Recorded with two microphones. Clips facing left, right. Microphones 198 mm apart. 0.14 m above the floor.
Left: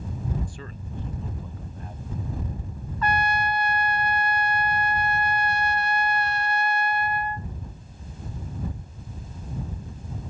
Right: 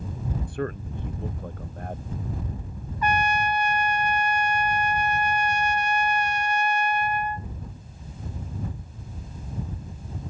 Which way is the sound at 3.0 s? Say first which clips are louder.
Right 1 dB; 15° right (ahead or behind).